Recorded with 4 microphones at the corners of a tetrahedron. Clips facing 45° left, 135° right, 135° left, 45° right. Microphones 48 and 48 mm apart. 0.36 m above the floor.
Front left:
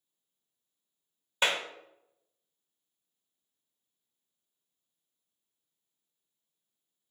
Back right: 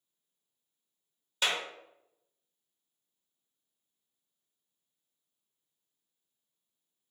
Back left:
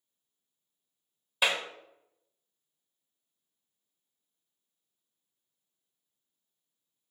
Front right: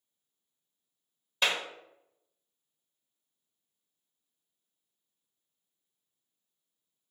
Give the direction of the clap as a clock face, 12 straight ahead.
10 o'clock.